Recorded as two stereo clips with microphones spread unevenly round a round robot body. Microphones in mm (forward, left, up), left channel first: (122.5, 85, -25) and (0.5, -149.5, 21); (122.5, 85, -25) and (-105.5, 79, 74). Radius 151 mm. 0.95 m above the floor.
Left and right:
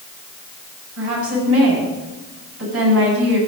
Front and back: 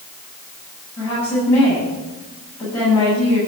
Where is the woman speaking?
80° right, 8 m.